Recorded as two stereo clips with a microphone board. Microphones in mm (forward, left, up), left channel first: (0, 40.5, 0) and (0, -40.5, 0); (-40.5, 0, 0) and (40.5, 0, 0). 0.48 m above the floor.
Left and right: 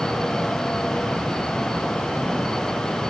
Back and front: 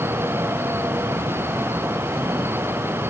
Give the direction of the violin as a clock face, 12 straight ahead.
No violin in this recording.